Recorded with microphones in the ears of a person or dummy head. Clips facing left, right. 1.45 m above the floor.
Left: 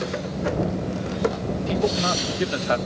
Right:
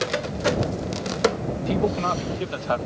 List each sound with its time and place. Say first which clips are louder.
1.6 s a man speaking: even; 5° left (ahead or behind); by 2.8 s 25° left (ahead or behind)